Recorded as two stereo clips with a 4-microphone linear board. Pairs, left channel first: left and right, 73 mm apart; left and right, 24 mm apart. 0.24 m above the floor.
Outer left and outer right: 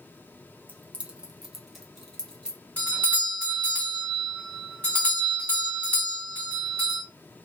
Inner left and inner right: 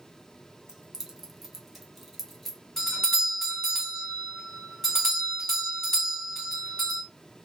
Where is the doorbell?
20° left (ahead or behind), 1.5 m.